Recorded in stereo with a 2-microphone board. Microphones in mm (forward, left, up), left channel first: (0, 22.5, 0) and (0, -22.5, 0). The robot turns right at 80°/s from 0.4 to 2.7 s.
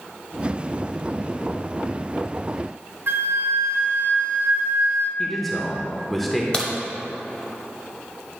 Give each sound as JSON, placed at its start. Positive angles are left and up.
{"t": 3.1, "sound": "a flute", "side_deg": -60, "distance_m": 0.8}
{"t": 5.2, "sound": "a man speaking", "side_deg": 5, "distance_m": 0.8}
{"t": 6.5, "sound": "a crack", "side_deg": 20, "distance_m": 1.1}